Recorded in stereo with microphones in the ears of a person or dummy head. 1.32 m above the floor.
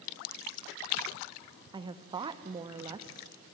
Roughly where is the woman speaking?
Right.